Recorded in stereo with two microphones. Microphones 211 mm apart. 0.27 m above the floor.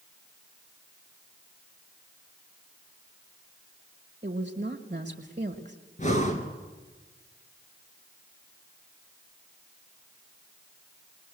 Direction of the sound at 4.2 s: 35° right (ahead or behind).